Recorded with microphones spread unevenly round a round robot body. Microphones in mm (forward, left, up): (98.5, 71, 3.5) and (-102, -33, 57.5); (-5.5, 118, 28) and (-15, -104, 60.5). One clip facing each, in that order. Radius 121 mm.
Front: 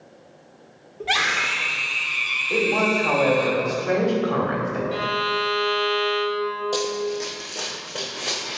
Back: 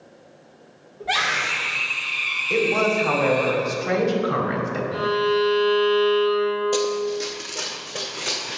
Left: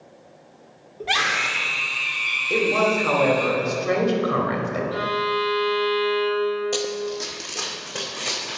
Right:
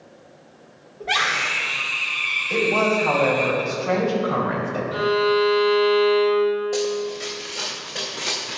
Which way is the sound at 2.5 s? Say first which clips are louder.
Back 1 dB, even; 140° left.